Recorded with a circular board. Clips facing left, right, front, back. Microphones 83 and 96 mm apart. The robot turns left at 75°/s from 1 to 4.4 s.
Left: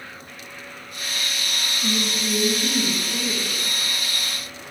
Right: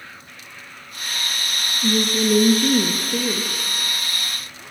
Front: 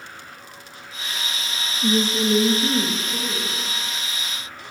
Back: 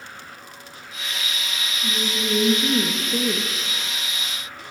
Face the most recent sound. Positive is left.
turn(degrees=140)